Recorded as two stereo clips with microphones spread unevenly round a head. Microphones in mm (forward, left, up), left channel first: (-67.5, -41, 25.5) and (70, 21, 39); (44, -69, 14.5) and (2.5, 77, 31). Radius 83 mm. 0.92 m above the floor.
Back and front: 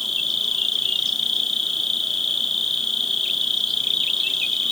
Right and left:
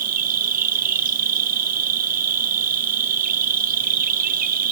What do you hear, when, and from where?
0.0 s an insect: 120° left, 0.7 m